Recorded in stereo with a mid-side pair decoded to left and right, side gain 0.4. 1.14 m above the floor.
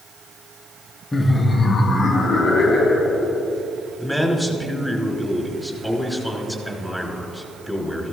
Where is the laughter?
25° left, 1.1 m; by 3.4 s 65° left, 4 m.